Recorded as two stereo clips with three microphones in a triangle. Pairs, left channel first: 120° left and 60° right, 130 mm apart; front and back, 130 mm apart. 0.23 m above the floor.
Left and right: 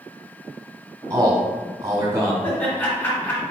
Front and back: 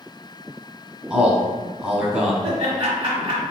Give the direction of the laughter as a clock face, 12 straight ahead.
6 o'clock.